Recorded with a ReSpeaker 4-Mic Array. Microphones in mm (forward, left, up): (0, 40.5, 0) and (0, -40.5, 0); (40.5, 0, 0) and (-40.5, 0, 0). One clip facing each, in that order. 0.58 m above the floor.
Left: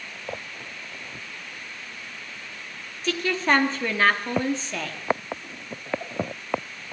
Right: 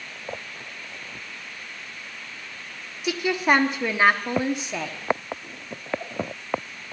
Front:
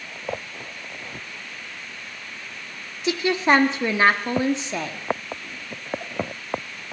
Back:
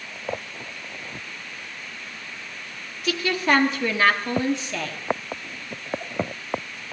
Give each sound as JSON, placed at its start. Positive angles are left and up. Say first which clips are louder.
{"t": 3.0, "sound": "a woman speaking", "louder": "right 2 dB, front 3 dB", "azimuth_deg": -30, "distance_m": 1.0}